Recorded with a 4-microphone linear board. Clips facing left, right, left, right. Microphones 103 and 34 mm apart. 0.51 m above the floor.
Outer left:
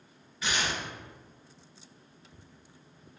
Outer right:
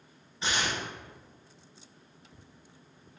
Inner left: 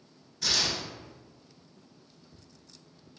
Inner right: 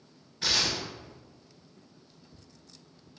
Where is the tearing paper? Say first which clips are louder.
Even, inner right 1 dB; 30° right (ahead or behind), 0.6 m.